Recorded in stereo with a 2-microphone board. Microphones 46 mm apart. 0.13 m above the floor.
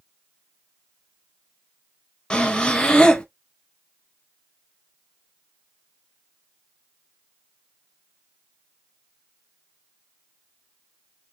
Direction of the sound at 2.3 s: 20° left (ahead or behind).